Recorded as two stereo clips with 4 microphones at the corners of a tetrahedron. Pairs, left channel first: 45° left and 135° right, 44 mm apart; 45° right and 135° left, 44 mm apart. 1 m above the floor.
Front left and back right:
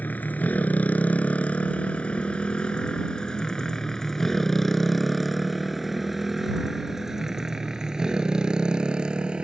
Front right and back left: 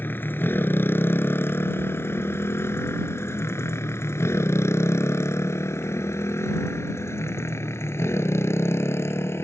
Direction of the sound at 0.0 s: 5° right.